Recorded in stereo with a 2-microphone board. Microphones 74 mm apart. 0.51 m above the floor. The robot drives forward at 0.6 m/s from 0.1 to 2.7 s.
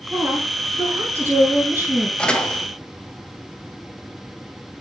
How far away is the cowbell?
No cowbell in this recording.